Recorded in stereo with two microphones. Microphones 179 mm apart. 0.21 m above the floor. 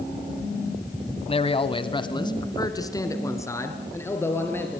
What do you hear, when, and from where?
1.3 s a man speaking: 30° left (ahead or behind), 1.1 m; by 4.8 s 10° left (ahead or behind), 3.5 m